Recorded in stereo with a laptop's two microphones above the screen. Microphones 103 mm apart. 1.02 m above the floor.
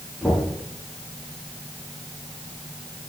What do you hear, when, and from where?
0.2 s knocking: 5° left (ahead or behind), 7.5 m